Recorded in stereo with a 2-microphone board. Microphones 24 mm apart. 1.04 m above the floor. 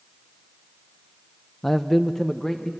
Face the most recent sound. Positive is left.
turn(degrees=20)  # may be behind; listen again after turning